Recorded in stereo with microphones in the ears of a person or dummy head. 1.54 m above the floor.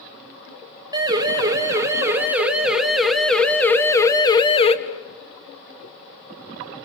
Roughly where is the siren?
Centre.